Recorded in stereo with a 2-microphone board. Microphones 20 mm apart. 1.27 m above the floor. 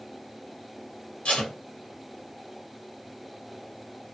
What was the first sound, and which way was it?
Tape being pulled, 70° left (ahead or behind).